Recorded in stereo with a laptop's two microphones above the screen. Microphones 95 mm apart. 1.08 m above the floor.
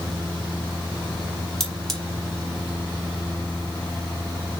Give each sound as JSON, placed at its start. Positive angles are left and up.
{"t": 1.6, "sound": "cutlery clinking", "side_deg": 5, "distance_m": 2.0}